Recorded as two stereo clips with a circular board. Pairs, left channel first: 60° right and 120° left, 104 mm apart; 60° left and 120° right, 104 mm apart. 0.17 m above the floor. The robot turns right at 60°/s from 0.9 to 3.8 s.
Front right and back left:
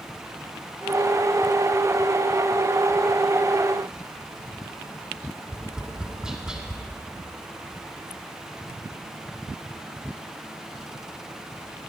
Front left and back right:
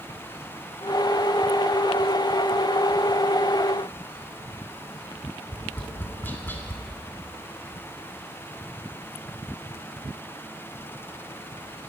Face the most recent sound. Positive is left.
turn(degrees=50)